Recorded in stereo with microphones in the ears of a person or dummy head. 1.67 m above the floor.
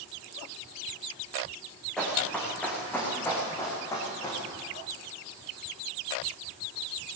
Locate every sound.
2.0 s running footsteps: 5° left (ahead or behind), 7 m; by 4.4 s 20° left (ahead or behind), 6.5 m